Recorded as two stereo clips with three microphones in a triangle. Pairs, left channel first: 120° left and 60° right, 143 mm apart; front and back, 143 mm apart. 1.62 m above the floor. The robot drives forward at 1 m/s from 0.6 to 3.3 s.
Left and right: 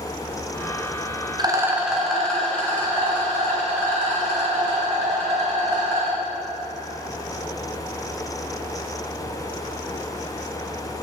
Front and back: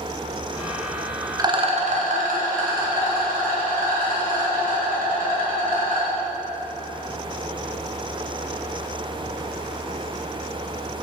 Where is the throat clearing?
I don't hear throat clearing.